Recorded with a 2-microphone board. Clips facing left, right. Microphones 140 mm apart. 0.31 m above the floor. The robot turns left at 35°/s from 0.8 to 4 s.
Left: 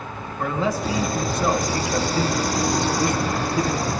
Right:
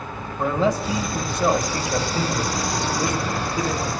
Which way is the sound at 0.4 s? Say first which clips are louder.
Right 3 dB; 25° right (ahead or behind).